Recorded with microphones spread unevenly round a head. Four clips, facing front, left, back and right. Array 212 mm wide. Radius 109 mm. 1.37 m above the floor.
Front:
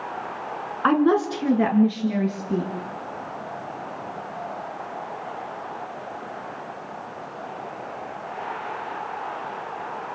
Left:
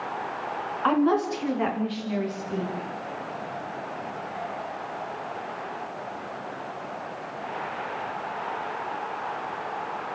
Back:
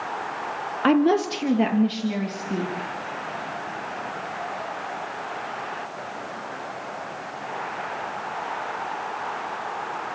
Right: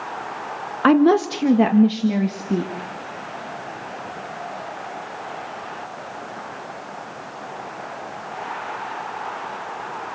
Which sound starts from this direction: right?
A woman speaking, at 0.8 s.